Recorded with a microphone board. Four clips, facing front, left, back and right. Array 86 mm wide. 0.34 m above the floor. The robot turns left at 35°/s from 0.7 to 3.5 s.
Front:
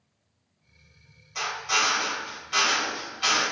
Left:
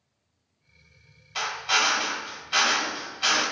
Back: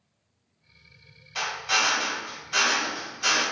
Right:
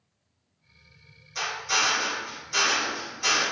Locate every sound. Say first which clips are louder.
1.4 s a drill: left 2 dB, even; 115° left, 1.4 m; by 3.4 s 40° left, 1.4 m